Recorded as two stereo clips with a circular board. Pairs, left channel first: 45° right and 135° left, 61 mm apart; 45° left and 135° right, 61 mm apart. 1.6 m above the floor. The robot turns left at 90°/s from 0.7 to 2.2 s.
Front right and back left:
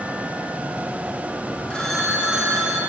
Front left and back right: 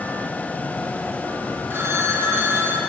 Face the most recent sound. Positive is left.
turn(degrees=-155)